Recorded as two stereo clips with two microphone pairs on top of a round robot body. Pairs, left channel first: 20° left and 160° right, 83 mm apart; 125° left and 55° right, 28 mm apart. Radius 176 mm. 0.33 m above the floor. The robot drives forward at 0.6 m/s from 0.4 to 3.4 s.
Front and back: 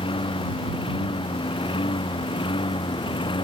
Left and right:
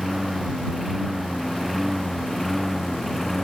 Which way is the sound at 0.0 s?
30° left.